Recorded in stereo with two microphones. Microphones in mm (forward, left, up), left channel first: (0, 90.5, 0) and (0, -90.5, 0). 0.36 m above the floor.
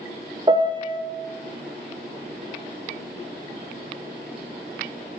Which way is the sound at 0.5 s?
25° right (ahead or behind).